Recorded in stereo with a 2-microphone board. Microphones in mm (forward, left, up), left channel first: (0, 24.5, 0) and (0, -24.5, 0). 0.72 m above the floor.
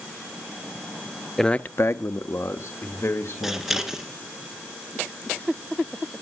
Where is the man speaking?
5° left (ahead or behind), 0.6 m; by 4.0 s 60° left (ahead or behind), 3.5 m.